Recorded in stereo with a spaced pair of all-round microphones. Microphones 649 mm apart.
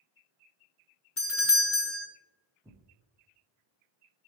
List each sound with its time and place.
1.2 s a doorbell: 25° left (ahead or behind), 0.6 m
2.6 s tearing paper: 5° right (ahead or behind), 0.7 m